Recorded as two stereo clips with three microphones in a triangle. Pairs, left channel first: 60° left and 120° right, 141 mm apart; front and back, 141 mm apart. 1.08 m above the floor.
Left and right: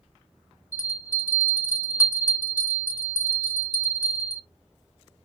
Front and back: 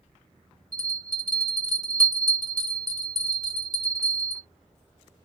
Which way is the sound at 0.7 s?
135° left.